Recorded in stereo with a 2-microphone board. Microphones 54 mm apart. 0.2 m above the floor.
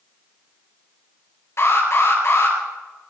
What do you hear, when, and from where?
1.6 s an alarm: 50° left (ahead or behind), 5 m